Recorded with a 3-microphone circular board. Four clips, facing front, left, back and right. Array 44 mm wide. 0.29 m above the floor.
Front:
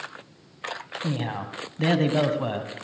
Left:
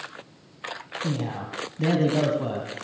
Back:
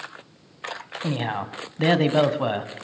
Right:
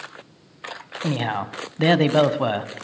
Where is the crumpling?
No crumpling in this recording.